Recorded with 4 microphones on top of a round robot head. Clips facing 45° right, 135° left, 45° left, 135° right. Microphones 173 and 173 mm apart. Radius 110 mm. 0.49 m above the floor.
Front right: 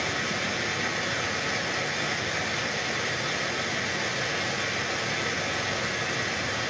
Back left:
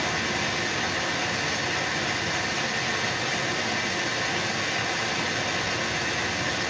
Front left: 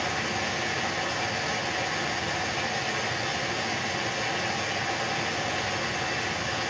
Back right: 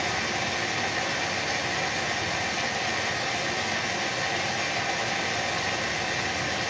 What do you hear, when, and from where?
0.0 s running water: 140° left, 3.5 m